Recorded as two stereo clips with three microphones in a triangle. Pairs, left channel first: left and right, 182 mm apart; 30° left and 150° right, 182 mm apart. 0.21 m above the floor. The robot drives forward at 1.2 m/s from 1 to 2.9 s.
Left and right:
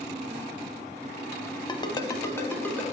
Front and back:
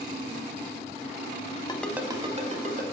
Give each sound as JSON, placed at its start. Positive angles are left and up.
{"t": 1.7, "sound": "a ringtone", "azimuth_deg": 55, "distance_m": 0.5}